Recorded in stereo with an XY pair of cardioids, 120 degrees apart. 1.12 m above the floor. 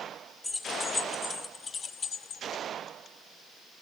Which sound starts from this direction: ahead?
Keys jangling, at 0.4 s.